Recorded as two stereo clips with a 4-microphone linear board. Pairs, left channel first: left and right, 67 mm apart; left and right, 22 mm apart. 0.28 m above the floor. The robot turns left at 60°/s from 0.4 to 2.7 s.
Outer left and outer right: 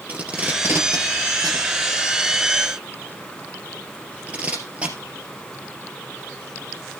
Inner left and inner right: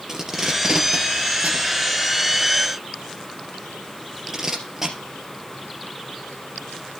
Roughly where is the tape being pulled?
Right.